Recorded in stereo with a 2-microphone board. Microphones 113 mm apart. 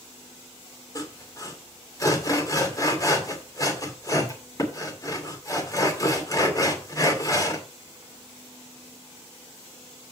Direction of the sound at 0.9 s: 30° left (ahead or behind).